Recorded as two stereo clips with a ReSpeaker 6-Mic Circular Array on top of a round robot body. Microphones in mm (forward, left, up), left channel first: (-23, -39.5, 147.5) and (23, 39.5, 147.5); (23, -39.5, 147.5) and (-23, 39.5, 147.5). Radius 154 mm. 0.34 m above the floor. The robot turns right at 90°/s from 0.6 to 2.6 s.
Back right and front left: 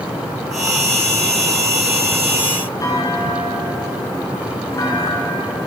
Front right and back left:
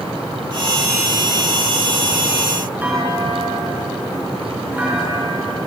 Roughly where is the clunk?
Behind.